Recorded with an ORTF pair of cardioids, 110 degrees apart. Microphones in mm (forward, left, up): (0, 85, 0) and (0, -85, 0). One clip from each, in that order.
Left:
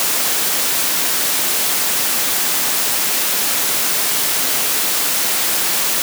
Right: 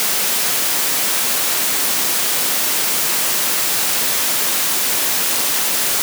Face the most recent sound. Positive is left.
No sound to turn to.